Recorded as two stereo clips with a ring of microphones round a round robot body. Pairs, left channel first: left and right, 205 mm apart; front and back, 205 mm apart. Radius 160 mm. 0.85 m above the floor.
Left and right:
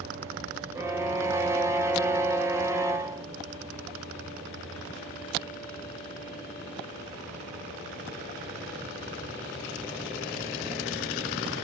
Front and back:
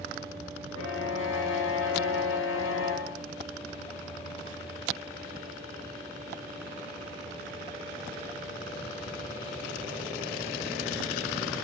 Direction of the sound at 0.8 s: 10° right.